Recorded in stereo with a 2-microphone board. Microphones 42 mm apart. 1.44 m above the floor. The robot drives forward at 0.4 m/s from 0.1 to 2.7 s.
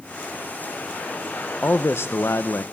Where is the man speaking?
65° left (ahead or behind), 1.0 m; by 2.6 s 80° left, 0.9 m.